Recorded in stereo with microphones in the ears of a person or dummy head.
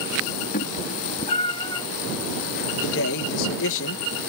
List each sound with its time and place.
0.5 s a cat meowing: 55° left (ahead or behind); by 1.9 s 25° left (ahead or behind)
2.8 s a man speaking: 75° left (ahead or behind)